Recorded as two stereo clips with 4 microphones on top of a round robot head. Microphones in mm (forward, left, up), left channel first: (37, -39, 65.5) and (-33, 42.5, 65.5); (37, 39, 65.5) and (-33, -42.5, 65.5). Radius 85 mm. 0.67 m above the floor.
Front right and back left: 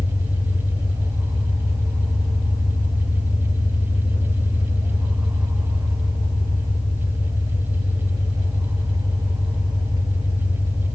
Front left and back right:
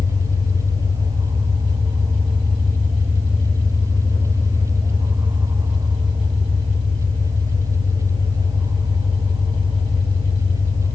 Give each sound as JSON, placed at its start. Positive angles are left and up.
{"t": 0.0, "sound": "an engine running", "azimuth_deg": 180, "distance_m": 5.0}